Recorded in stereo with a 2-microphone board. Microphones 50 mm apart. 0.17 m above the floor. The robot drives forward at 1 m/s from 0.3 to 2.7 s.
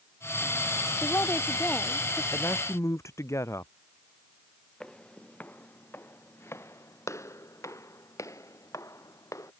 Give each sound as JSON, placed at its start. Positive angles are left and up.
{"t": 1.0, "sound": "a woman speaking", "side_deg": 50}
{"t": 2.3, "sound": "a man speaking", "side_deg": 70}
{"t": 4.8, "sound": "footsteps", "side_deg": 15}